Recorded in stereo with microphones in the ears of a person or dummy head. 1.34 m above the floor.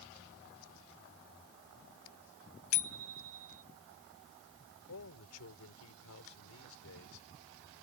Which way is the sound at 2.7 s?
80° left.